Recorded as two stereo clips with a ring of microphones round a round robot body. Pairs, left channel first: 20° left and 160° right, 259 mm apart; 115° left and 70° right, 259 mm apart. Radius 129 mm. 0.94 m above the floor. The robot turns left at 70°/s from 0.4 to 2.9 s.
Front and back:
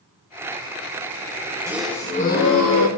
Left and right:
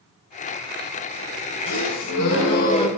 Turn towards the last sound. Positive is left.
turn(degrees=35)